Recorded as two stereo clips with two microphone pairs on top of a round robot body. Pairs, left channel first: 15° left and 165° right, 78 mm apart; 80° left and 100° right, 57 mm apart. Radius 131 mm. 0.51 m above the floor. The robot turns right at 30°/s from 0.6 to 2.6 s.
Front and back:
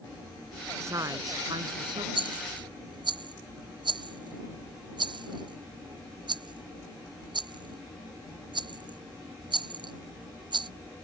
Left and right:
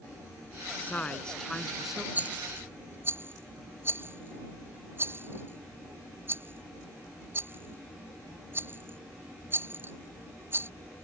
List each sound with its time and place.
0.8 s a woman speaking: 140° left; by 2.0 s straight behind
2.1 s a rattle: 165° right; by 10.7 s 150° right